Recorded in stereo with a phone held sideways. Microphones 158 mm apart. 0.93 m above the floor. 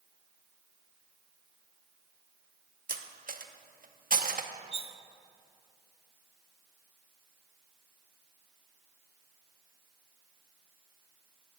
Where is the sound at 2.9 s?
60° right (ahead or behind), 0.6 m.